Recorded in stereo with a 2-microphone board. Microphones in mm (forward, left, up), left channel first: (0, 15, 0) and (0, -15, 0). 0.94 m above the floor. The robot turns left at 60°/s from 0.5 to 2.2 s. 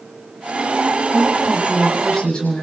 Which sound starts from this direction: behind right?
A woman speaking, at 1.1 s.